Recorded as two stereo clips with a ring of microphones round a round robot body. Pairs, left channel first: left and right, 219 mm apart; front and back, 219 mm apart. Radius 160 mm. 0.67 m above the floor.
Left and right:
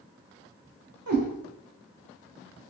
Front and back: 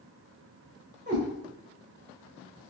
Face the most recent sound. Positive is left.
turn(degrees=-115)